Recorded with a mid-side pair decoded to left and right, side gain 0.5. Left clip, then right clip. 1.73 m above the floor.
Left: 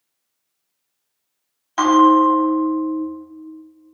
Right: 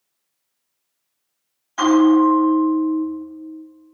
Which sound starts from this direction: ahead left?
A bell, at 1.8 s.